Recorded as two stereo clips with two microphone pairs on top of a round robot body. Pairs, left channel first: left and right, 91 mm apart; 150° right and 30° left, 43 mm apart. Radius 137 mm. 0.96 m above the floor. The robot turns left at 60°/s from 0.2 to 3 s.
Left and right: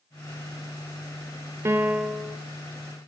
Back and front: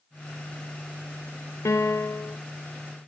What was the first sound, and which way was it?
A piano, 155° right.